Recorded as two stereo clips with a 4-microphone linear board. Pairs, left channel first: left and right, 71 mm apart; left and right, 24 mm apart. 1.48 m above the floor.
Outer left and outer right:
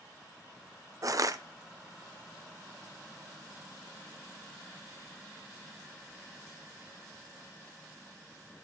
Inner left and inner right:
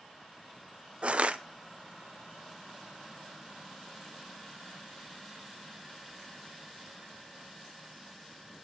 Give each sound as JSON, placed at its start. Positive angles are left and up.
{"t": 1.0, "sound": "crushing", "side_deg": -50, "distance_m": 0.7}